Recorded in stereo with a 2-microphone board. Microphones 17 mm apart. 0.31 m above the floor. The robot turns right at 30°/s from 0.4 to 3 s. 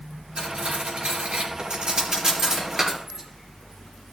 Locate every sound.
0.4 s cutlery clinking: 75° right (ahead or behind), 4 m; by 3.2 s 20° right (ahead or behind), 4 m